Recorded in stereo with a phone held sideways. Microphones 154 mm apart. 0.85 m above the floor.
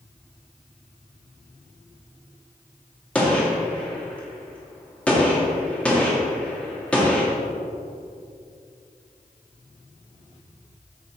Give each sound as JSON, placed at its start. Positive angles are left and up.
{"t": 3.1, "sound": "a gunshot", "side_deg": 10, "distance_m": 2.0}